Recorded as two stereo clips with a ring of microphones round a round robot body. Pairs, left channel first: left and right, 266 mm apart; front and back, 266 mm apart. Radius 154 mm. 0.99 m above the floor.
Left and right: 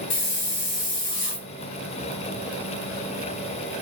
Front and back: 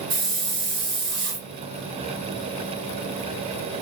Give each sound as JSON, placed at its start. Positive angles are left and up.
{"t": 0.1, "sound": "a hiss", "azimuth_deg": 130, "distance_m": 1.5}